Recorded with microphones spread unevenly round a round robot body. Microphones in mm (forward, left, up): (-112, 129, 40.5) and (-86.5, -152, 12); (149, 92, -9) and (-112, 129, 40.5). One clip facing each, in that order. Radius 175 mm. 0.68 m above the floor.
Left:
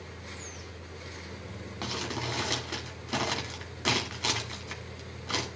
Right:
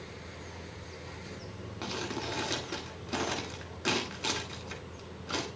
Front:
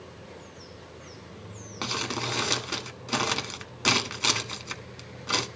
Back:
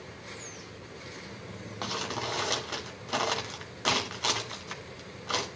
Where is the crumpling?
15° left, 1.3 m.